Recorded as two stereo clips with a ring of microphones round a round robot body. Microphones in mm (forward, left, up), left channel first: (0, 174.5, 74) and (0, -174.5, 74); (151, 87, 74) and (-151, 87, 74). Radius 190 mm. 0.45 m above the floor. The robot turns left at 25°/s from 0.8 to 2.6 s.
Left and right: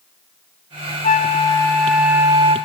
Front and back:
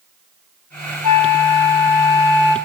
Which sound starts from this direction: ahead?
A flute, at 1.0 s.